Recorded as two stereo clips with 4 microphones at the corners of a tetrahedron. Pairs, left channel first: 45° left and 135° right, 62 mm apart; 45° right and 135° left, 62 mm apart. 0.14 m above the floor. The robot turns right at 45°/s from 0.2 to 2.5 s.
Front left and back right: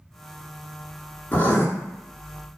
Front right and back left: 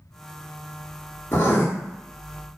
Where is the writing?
5° right, 0.7 m; by 1.7 s 10° left, 0.7 m.